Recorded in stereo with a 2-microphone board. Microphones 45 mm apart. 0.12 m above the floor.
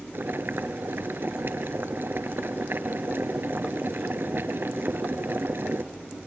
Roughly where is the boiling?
Right.